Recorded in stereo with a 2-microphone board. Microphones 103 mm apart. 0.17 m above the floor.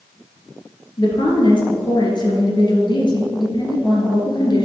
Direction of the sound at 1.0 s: 45° left (ahead or behind).